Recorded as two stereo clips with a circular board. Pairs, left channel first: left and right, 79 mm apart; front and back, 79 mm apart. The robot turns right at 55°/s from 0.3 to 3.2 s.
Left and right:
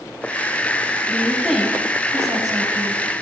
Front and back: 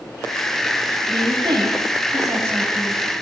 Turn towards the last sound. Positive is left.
turn(degrees=-85)